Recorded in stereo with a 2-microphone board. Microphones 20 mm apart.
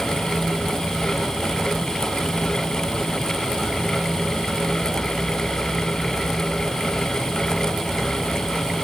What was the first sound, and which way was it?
Only background noise.